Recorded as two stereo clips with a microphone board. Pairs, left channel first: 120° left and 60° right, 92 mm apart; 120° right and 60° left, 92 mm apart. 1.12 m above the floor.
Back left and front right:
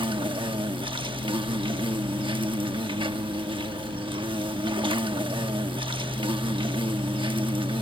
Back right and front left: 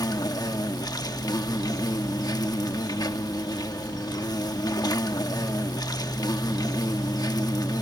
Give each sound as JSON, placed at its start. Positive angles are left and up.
{"t": 0.0, "sound": "an insect", "azimuth_deg": -75}